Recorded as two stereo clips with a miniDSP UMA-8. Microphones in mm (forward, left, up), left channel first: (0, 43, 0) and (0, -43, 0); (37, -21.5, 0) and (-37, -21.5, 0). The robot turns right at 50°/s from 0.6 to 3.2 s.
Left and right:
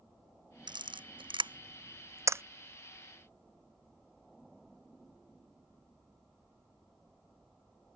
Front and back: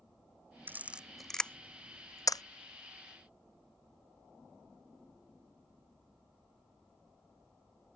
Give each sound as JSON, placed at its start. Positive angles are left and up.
{"t": 0.7, "sound": "a camera shutter", "azimuth_deg": -115}